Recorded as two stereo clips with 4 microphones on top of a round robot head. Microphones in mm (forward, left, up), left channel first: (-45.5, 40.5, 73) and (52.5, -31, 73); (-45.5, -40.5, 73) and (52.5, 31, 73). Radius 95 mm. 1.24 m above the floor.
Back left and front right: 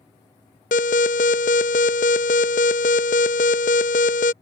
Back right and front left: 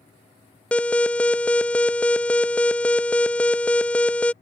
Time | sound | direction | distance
0.7 | an alarm | 135° left | ?